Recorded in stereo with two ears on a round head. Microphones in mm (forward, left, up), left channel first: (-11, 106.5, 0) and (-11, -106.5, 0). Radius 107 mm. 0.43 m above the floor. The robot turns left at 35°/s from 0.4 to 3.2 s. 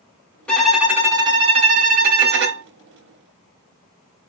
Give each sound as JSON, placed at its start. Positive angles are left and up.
{"t": 0.5, "sound": "a violin", "azimuth_deg": 5, "distance_m": 0.9}